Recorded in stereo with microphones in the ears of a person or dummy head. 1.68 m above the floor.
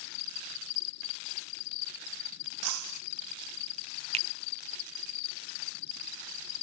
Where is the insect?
65° left (ahead or behind).